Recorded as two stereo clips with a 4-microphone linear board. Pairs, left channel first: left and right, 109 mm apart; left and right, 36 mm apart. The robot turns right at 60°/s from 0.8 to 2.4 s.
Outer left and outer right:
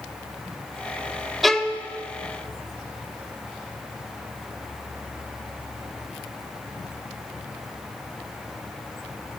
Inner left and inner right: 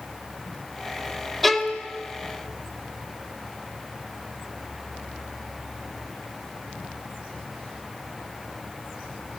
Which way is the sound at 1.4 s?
Centre (ahead or behind).